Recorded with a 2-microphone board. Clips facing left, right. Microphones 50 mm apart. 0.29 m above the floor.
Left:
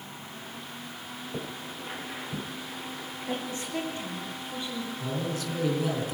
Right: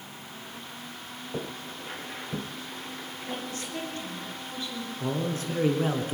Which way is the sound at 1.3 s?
15° right (ahead or behind).